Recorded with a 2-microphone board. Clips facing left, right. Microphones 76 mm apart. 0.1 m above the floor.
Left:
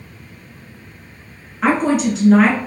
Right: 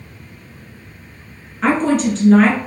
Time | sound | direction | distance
1.6 | a woman speaking | 5° left (ahead or behind) | 1.1 m